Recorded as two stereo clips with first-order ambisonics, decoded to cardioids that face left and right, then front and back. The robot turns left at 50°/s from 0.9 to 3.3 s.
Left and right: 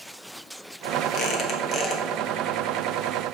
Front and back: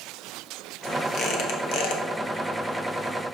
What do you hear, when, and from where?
1.1 s a squeak: 55° left, 1.2 m; by 2.0 s 10° left, 1.2 m